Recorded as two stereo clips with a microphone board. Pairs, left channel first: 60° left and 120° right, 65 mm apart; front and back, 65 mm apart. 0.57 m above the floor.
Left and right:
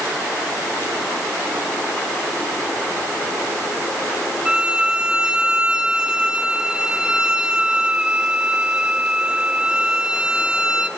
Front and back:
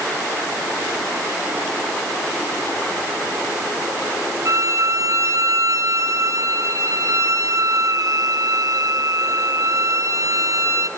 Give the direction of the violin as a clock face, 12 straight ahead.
6 o'clock.